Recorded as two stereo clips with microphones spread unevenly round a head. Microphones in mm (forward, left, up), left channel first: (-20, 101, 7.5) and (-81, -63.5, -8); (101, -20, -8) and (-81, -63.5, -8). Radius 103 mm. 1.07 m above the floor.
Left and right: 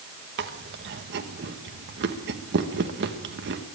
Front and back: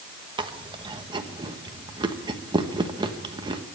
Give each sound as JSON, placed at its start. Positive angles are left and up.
{"t": 0.4, "sound": "chewing", "azimuth_deg": -100, "distance_m": 1.2}